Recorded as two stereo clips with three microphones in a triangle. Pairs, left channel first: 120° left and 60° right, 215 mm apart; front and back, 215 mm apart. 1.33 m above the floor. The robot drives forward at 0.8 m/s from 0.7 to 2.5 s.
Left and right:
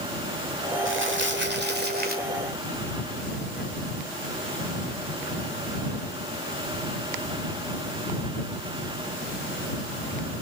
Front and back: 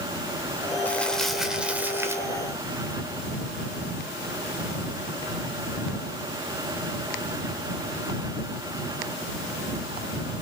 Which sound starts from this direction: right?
Crumpling, at 0.8 s.